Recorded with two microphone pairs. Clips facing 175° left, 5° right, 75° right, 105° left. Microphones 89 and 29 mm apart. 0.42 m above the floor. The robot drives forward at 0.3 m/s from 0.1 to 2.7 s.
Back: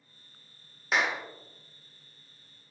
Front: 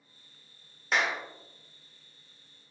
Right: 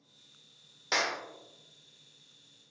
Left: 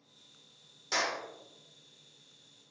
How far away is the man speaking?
I don't hear a man speaking.